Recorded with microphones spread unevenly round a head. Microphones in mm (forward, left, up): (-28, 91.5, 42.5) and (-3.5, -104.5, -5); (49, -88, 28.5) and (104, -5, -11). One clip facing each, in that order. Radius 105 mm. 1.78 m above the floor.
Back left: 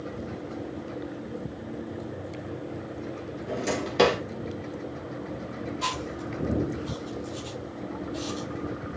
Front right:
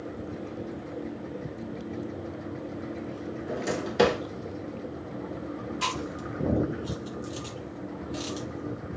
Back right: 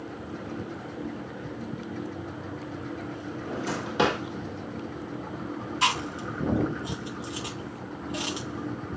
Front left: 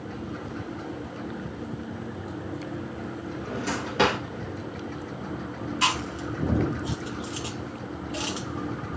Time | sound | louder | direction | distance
3.5 | a drawer | back left 2 dB, front left 1 dB | straight behind | 1.4 m
5.8 | chewing | even, even | 65° right | 3 m